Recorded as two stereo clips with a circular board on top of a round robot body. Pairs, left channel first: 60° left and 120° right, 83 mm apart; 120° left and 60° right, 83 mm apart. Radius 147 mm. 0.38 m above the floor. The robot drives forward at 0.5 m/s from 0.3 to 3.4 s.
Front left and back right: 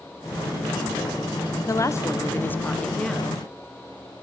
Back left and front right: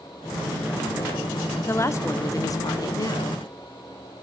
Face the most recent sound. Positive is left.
turn(degrees=140)